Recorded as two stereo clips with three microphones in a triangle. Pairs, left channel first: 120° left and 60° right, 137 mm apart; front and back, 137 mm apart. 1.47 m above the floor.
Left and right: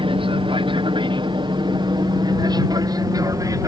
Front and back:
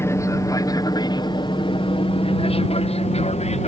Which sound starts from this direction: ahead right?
An aircraft, at 0.0 s.